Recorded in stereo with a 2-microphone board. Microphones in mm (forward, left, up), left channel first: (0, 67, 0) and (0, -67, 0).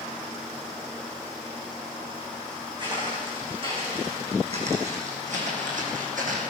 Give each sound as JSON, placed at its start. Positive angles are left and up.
{"t": 2.8, "sound": "footsteps", "side_deg": -35, "distance_m": 5.5}